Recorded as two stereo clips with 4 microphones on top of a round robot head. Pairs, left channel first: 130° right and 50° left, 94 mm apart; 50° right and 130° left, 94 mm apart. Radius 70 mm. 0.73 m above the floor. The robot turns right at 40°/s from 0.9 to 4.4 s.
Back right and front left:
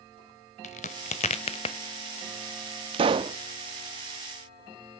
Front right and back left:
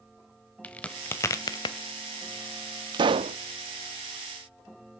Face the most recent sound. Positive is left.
turn(degrees=140)